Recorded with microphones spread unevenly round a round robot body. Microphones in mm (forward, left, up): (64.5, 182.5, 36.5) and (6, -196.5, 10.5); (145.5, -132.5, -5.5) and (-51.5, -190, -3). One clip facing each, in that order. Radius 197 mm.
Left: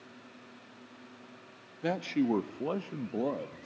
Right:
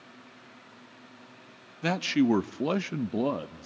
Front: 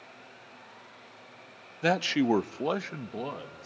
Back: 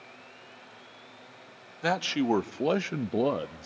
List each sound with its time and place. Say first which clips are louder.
1.8 s a man speaking: right 5 dB, front 2 dB; 45° right, 0.9 m; by 3.7 s 155° right, 0.8 m